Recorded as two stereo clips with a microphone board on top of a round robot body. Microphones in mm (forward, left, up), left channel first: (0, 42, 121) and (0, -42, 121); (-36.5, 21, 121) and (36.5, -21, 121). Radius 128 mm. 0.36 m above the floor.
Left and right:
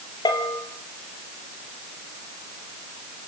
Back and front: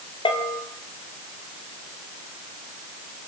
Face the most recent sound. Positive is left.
turn(degrees=130)